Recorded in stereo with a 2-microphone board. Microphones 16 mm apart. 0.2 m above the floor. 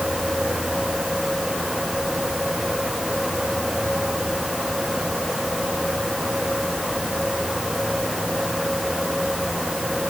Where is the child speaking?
No child speaking in this recording.